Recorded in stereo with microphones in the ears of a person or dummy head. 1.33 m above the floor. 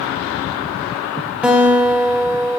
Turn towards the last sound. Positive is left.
turn(degrees=-10)  # may be behind; listen again after turning